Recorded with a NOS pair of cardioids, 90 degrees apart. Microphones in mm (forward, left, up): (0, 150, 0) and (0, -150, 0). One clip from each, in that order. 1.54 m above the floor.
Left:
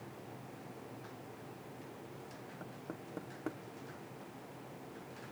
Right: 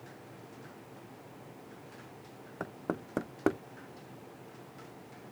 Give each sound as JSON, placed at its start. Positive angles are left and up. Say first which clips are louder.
{"t": 2.6, "sound": "knocking", "louder": "right 13 dB", "azimuth_deg": -65}